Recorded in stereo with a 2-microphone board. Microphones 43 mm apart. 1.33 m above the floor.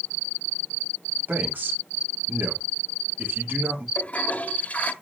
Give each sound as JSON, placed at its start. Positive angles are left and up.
{"t": 1.3, "sound": "a man speaking", "side_deg": -45, "distance_m": 3.5}
{"t": 4.0, "sound": "a toilet flushing", "side_deg": 35, "distance_m": 1.3}